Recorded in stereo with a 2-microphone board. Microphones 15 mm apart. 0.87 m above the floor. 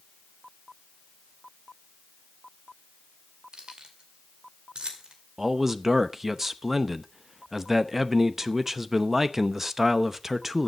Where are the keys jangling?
80° right, 2 m; by 5.1 s 65° right (ahead or behind), 2 m.